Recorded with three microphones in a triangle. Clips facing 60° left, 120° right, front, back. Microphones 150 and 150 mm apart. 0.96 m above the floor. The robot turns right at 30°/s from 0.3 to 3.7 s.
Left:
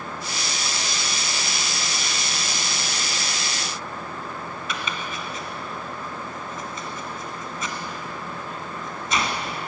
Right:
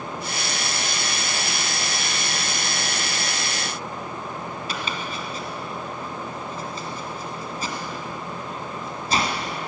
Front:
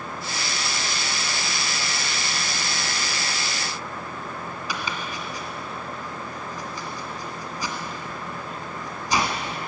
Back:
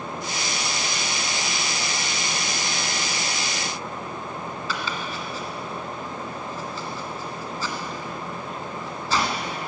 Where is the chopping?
70° right, 1.4 m.